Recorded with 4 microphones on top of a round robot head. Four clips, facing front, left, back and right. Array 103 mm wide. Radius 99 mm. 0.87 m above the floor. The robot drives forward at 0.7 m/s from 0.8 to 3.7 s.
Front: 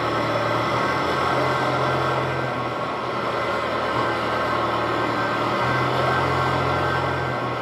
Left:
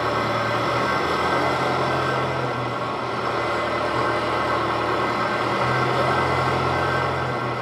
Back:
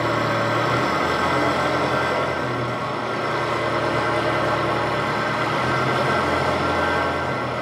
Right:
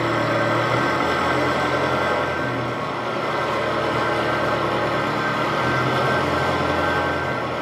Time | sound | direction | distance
0.0 | an engine running | 130° right | 10 m